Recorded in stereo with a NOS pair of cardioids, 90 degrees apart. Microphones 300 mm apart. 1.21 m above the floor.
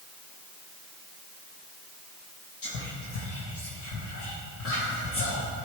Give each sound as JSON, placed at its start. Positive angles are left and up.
{"t": 2.6, "sound": "whispering", "azimuth_deg": 45, "distance_m": 1.2}